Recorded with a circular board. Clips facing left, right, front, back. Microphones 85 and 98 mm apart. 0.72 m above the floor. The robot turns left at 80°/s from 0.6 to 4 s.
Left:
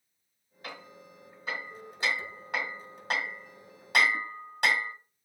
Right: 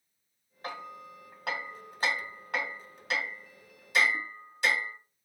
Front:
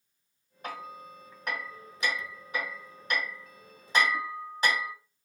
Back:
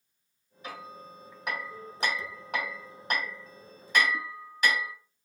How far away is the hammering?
About 2.0 m.